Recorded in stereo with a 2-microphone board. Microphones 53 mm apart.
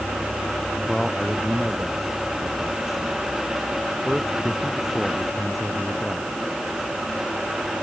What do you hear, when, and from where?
0.9 s a man speaking: centre (ahead or behind)